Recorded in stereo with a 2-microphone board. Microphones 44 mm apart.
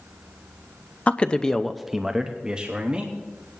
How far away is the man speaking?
About 0.6 m.